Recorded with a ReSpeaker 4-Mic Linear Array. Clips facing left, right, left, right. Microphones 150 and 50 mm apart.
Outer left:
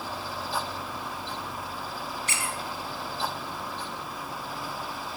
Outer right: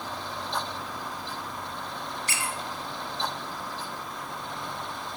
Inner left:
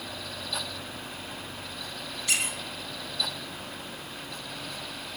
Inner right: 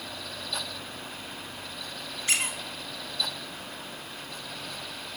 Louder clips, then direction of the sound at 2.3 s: Even, inner right 1 dB; 35° right (ahead or behind).